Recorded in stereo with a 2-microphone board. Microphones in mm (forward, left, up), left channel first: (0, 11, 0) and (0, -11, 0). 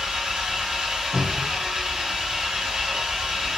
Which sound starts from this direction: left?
A cupboard door, at 1.1 s.